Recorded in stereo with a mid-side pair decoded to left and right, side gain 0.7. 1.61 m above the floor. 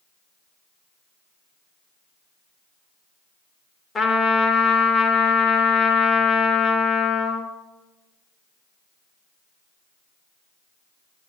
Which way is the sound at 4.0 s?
30° left.